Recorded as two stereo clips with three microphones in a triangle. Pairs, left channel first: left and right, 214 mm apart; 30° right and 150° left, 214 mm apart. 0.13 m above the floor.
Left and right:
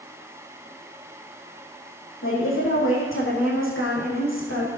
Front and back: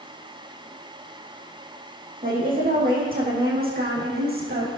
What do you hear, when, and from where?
2.2 s a woman speaking: 100° left, 5 m; by 4.7 s 110° left, 6 m